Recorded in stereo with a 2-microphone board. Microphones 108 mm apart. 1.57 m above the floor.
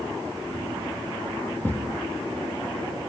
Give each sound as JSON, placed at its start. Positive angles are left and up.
{"t": 1.6, "sound": "a thud", "side_deg": 15, "distance_m": 3.5}